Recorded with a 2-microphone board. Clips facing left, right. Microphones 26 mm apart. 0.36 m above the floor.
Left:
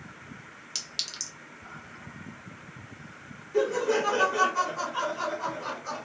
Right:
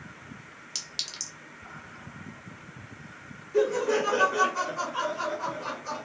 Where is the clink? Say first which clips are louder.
Left 1 dB; 5° left (ahead or behind), 0.7 m.